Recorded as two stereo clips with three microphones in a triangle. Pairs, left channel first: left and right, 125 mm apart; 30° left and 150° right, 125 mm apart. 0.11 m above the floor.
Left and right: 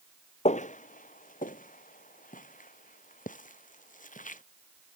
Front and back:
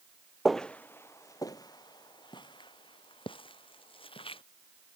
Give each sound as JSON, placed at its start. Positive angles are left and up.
{"t": 0.5, "sound": "footsteps", "azimuth_deg": 120}